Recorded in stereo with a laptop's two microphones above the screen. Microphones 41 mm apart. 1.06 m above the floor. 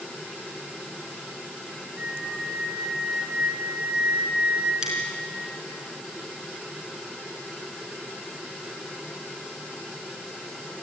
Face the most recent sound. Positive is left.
turn(degrees=-20)  # may be behind; listen again after turning